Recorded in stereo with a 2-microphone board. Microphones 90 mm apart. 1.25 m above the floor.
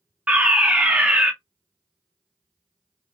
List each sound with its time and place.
0.3 s a fire alarm: 15° right (ahead or behind), 1.0 m